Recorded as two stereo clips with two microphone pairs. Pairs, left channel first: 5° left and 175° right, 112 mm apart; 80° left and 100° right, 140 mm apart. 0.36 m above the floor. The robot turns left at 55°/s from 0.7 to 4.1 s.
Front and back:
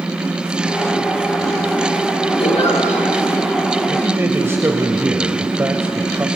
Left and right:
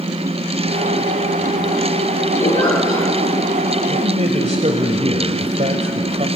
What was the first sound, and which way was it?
A giggle, 45° left.